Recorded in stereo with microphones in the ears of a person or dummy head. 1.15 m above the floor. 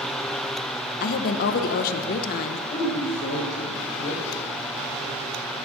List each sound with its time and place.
1.0 s a woman speaking: 45° left (ahead or behind), 0.5 m
2.7 s a woman speaking: 35° left (ahead or behind), 3.5 m